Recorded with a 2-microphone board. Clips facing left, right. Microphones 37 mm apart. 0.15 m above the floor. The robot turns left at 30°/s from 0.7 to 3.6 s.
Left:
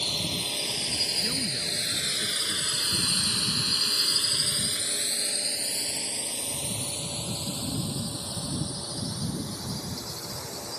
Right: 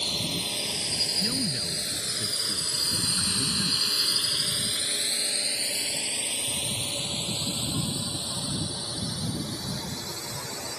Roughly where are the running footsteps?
I don't hear running footsteps.